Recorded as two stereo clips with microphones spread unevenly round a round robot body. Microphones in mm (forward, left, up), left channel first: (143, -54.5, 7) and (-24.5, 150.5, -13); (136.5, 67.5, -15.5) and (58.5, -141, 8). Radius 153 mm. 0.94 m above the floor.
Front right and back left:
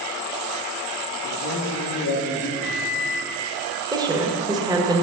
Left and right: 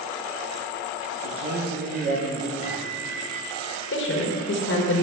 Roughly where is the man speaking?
Right.